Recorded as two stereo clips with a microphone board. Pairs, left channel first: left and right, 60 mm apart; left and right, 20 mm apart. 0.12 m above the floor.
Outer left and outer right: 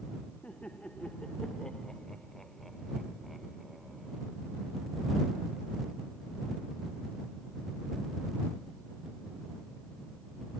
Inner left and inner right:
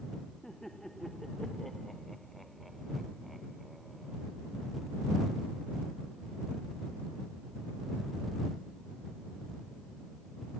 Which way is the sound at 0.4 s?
20° left (ahead or behind).